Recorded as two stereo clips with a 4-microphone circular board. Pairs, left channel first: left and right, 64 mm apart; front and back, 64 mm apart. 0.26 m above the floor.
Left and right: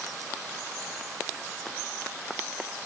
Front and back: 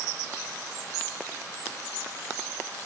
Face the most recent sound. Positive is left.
No sound to turn to.